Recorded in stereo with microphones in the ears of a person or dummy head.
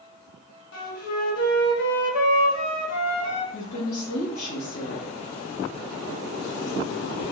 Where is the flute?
65° left (ahead or behind), 0.9 m.